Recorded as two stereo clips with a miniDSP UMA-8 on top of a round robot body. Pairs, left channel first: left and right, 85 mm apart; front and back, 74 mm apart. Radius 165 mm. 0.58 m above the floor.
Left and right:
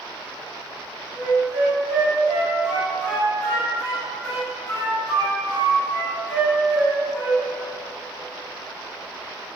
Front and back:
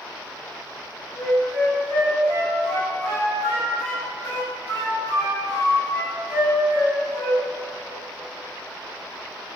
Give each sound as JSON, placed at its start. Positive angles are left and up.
{"t": 1.2, "sound": "a flute", "azimuth_deg": 30, "distance_m": 1.7}